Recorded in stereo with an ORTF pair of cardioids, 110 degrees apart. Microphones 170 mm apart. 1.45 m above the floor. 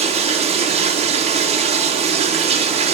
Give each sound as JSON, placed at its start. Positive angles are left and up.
{"t": 0.0, "sound": "running water", "azimuth_deg": -35, "distance_m": 1.0}